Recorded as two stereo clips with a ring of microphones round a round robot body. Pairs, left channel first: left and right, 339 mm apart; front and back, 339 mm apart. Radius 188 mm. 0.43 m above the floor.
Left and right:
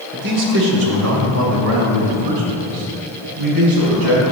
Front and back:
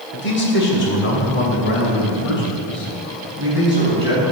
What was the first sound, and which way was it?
A man speaking, 45° right.